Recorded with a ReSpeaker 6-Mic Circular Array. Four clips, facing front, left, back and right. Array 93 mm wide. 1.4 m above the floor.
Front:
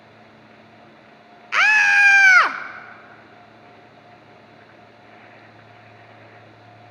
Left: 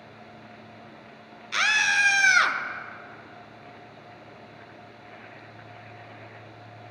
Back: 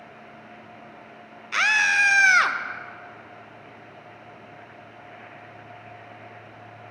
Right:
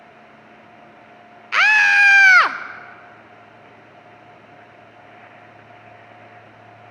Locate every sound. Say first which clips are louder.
1.5 s a scream: right 9 dB, front 6 dB; 55° right, 0.5 m